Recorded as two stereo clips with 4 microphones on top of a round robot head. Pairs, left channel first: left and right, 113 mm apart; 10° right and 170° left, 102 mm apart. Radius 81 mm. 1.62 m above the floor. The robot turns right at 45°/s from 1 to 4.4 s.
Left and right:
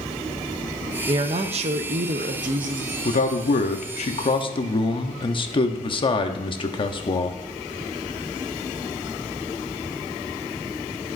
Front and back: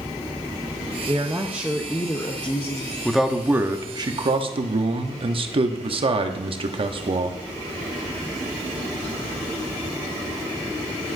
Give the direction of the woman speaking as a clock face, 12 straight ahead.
4 o'clock.